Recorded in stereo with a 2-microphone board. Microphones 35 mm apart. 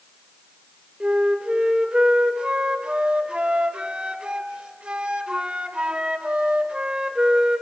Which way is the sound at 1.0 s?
35° right (ahead or behind).